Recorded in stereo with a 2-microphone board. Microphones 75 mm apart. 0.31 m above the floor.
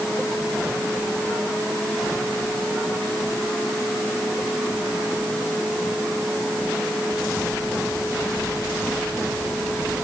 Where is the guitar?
No guitar in this recording.